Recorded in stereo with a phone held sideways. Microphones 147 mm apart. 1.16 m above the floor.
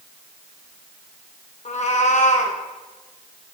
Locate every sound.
1.6 s a cat meowing: 50° left (ahead or behind), 0.8 m